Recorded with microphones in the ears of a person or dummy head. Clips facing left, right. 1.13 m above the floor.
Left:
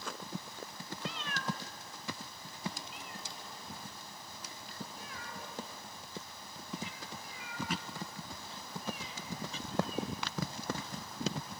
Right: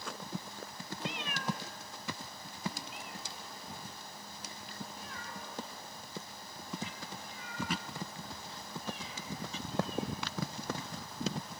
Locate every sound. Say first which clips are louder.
1.0 s a cat meowing: right 2 dB; 20° right (ahead or behind), 0.6 m; by 11.5 s 5° left (ahead or behind), 6.5 m